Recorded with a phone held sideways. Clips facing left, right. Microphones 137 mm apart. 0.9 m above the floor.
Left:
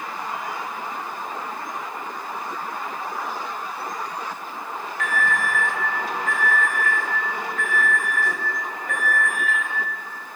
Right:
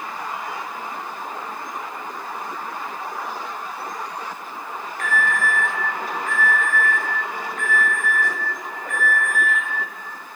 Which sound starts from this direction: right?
An alarm, at 5.0 s.